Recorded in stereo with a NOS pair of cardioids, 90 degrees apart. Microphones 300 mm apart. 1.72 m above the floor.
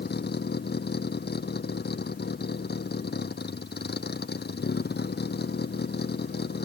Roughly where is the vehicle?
Ahead left.